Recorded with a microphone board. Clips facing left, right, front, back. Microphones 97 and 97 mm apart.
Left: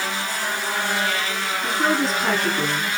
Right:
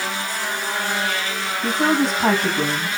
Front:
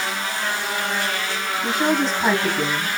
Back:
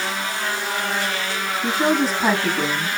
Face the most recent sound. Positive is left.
turn(degrees=-95)